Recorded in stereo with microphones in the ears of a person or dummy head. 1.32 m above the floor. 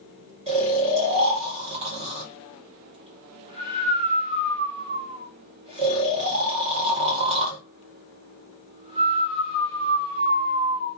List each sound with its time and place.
0.5 s snoring: 30° right (ahead or behind), 0.7 m